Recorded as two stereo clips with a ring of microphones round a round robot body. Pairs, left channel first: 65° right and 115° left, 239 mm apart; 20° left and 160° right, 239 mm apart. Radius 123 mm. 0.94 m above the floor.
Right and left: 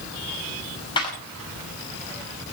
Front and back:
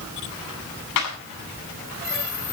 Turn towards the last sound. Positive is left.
turn(degrees=5)